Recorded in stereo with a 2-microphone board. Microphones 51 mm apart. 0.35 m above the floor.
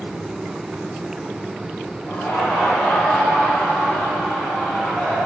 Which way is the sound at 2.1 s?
45° left (ahead or behind).